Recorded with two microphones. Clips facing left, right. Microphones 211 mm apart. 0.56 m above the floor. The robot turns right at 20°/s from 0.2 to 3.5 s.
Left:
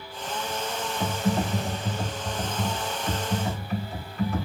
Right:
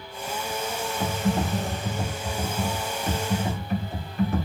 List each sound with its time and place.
1.0 s typing on a keyboard: 175° right, 1.7 m; by 4.5 s 125° right, 1.7 m